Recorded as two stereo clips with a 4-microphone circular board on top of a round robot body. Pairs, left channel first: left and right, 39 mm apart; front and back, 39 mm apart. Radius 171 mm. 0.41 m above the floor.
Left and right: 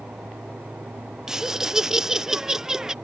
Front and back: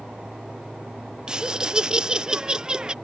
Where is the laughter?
145° right.